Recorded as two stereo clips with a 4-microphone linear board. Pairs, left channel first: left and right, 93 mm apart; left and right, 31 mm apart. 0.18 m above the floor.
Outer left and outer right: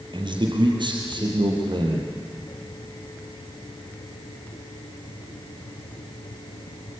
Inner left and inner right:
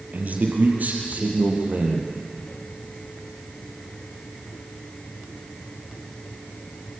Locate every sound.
0.1 s a man speaking: 60° right (ahead or behind), 4 m; by 2.1 s 55° right (ahead or behind), 5.5 m